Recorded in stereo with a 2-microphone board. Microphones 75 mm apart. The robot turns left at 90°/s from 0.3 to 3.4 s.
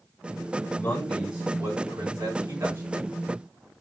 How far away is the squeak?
I don't hear a squeak.